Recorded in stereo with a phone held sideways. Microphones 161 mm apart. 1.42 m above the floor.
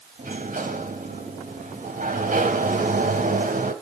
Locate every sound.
0.2 s a sliding door: 55° right (ahead or behind), 3 m